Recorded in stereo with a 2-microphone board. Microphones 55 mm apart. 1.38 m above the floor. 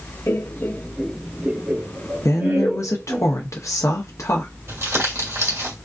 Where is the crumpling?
60° right (ahead or behind), 2.0 m.